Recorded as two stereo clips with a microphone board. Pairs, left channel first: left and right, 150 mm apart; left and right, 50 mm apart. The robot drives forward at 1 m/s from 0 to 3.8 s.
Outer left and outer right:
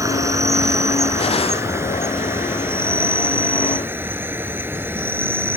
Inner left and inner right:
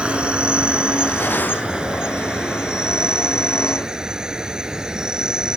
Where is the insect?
20° right (ahead or behind); by 5.6 s 15° right (ahead or behind).